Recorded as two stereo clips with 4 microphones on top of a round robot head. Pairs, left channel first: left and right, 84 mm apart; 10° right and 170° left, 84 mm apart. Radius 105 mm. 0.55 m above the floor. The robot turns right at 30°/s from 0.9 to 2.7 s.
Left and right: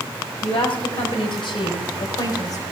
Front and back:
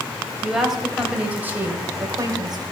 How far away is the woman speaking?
About 4 m.